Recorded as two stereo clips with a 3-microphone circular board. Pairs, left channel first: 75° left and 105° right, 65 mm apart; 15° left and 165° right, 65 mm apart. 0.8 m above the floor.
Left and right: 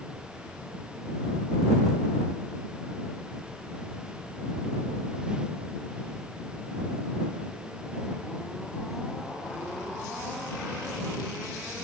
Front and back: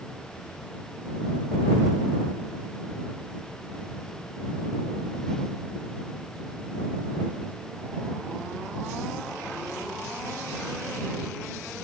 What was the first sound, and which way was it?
Only background noise.